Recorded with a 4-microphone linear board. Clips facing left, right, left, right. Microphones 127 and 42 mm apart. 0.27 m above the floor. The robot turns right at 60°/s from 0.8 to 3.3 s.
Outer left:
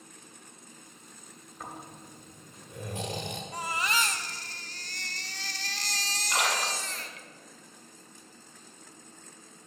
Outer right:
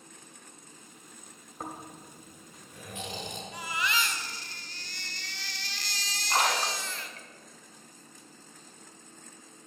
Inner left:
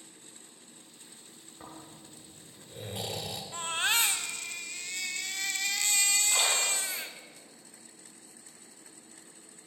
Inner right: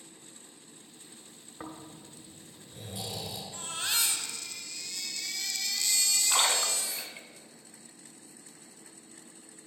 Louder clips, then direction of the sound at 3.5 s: Outer left 1 dB, inner left 6 dB; 40° left (ahead or behind).